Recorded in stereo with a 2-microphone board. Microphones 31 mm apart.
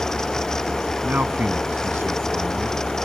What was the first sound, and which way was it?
A man speaking, 70° right (ahead or behind).